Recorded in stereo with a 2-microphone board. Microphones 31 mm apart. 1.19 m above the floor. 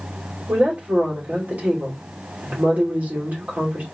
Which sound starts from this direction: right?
A woman speaking, at 0.5 s.